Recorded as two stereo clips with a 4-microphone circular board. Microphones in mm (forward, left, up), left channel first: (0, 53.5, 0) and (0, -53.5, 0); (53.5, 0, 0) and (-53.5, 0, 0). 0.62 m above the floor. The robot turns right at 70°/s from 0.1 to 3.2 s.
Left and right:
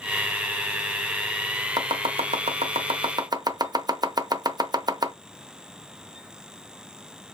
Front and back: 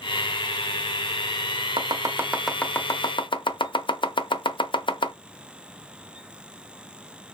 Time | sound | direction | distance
1.8 | chopping | 140° right | 0.5 m